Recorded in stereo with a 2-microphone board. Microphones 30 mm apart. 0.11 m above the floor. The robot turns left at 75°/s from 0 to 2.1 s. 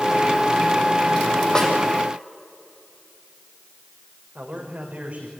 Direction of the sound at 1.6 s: 25° left (ahead or behind).